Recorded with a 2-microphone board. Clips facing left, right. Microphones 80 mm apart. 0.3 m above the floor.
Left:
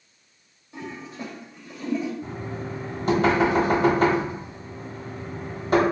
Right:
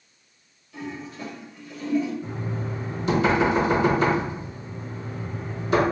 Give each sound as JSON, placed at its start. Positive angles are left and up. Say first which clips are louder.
{"t": 0.7, "sound": "a toilet flushing", "louder": "right 1 dB", "side_deg": 25, "distance_m": 0.9}
{"t": 2.2, "sound": "knocking", "louder": "right 1 dB", "side_deg": 40, "distance_m": 1.3}